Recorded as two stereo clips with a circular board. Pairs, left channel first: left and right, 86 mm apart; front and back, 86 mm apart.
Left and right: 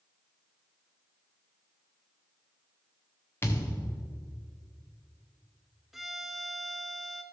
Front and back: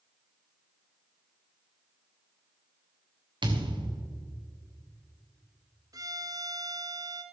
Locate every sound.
3.4 s a thud: 155° left, 1.5 m
5.9 s a violin: 175° right, 0.8 m